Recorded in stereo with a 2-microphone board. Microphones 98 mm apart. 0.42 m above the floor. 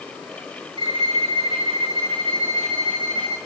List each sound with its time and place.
0.8 s a violin: 60° right (ahead or behind), 6.5 m